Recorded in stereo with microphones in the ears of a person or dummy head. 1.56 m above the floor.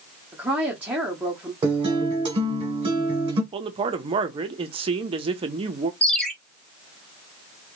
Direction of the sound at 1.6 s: 30° right (ahead or behind).